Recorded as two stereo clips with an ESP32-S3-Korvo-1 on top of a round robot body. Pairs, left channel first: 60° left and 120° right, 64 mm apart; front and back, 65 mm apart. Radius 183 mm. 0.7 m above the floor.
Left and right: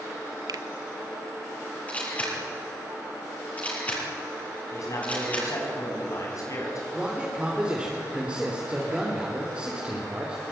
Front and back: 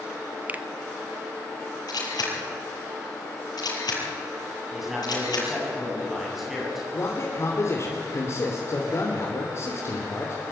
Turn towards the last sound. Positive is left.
turn(degrees=-45)